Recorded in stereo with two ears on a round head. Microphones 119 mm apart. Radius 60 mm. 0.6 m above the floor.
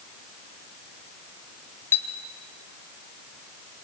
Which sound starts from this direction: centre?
A clink, at 1.9 s.